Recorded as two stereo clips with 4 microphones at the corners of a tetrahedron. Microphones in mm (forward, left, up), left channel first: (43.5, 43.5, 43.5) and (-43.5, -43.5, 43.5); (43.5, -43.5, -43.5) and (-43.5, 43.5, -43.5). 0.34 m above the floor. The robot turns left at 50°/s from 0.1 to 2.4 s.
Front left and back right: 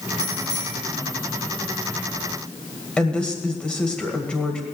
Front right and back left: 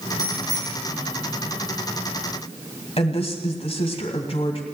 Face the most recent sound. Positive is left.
turn(degrees=-35)